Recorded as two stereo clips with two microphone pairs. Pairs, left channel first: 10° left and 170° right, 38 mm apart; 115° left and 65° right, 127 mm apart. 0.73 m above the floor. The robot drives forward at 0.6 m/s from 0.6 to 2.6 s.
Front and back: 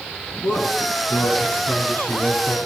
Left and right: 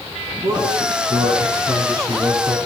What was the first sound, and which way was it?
A man speaking, 5° right.